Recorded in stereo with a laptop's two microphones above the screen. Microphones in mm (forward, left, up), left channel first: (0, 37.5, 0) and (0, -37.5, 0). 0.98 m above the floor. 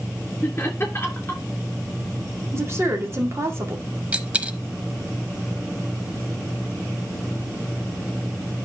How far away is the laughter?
About 2.5 m.